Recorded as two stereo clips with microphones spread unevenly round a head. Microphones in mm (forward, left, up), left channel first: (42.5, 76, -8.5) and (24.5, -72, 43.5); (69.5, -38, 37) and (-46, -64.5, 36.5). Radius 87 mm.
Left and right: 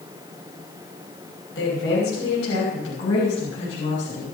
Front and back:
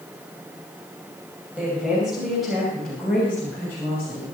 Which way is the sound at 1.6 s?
115° left.